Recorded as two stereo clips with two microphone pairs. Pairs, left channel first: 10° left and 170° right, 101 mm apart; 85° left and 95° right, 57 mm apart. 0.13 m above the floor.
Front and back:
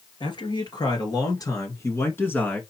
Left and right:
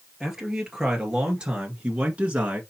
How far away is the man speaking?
About 2.5 m.